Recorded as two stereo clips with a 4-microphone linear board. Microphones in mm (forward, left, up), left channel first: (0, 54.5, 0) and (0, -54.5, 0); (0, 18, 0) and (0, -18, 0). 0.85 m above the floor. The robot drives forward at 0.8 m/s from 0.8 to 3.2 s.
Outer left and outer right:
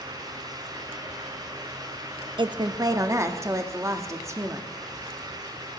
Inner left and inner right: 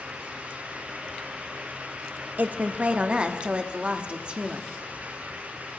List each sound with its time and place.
2.4 s a woman speaking: 50° right (ahead or behind), 0.7 m; by 4.7 s 25° right (ahead or behind), 1.2 m